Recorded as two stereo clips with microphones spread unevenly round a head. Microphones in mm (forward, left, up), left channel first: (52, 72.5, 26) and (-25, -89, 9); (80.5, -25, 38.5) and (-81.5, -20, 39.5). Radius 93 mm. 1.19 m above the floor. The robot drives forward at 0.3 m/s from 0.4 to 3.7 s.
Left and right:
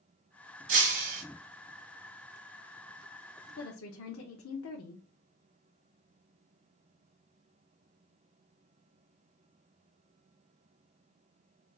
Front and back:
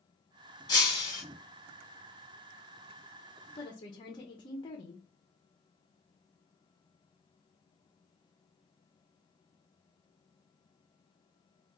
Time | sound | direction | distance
0.7 | breaking glass | 70° right | 1.8 m
3.6 | a woman speaking | 60° left | 0.7 m